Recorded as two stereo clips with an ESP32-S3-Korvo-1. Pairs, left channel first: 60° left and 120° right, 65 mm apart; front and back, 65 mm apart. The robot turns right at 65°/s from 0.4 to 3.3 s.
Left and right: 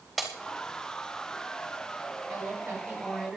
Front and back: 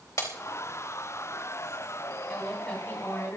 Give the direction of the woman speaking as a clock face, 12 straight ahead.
3 o'clock.